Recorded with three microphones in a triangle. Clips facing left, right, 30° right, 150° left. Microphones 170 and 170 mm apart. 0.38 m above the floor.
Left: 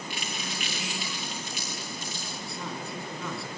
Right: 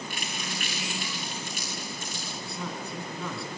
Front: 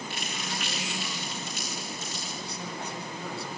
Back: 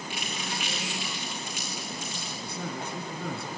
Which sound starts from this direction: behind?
A man speaking, at 2.4 s.